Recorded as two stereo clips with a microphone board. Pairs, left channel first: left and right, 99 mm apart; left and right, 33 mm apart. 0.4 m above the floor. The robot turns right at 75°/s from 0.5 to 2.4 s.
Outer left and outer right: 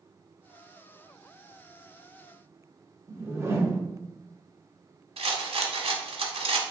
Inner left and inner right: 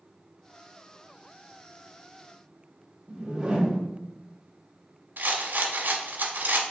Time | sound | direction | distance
3.1 | a whoosh | 25° right (ahead or behind) | 0.8 m
5.2 | a rattle | 85° right | 0.7 m